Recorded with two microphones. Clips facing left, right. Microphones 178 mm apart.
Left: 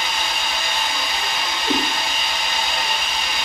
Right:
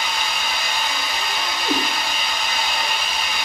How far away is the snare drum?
I don't hear a snare drum.